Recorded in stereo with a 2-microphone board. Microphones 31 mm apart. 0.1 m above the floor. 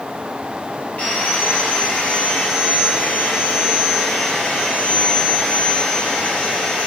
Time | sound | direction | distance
1.0 | sawing | 75° left (ahead or behind) | 5.5 m